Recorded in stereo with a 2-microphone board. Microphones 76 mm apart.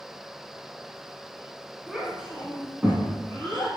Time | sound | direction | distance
1.9 | a child speaking | 5° right (ahead or behind) | 1.2 m